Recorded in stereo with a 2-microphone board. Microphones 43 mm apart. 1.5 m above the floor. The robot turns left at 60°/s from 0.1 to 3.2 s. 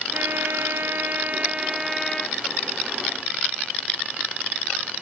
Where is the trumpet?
65° right; by 2.4 s 160° left.